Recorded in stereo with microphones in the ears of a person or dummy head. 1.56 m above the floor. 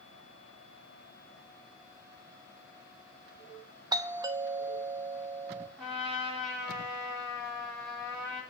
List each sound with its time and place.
3.9 s a doorbell: 15° right (ahead or behind), 1.1 m
5.8 s a trumpet: 10° left (ahead or behind), 5.5 m